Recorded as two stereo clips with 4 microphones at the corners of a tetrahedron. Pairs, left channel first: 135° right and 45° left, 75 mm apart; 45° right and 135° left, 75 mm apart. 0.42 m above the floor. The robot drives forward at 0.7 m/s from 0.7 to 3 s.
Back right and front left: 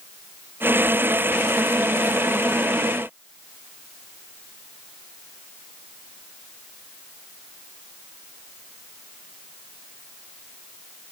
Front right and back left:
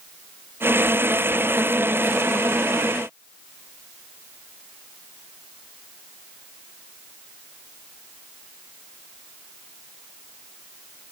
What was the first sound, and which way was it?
Only background noise.